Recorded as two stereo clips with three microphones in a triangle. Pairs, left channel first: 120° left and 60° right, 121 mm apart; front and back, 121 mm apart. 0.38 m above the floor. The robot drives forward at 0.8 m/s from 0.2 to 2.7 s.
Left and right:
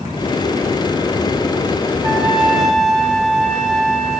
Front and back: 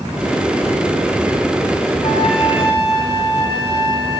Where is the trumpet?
20° left, 2 m; by 4.2 s 30° left, 1.8 m.